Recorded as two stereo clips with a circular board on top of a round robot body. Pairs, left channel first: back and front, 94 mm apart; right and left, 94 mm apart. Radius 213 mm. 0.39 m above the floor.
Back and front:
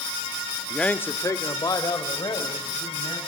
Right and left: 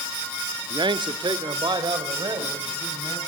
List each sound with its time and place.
0.7 s a man speaking: 95° left, 1.1 m; by 3.2 s 140° left, 4.5 m